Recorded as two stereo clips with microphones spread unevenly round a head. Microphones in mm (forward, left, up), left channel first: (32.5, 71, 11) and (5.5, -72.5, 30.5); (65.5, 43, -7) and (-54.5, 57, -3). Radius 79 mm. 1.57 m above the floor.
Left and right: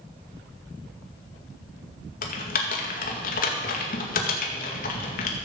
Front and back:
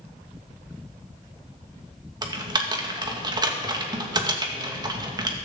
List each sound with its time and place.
2.2 s typing on a keyboard: 120° left, 2 m